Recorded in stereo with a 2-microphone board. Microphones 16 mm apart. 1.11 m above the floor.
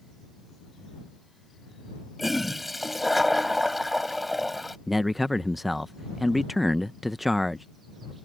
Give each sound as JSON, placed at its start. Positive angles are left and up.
{"t": 2.2, "sound": "a toilet flushing", "side_deg": -5}
{"t": 4.9, "sound": "a man speaking", "side_deg": -5}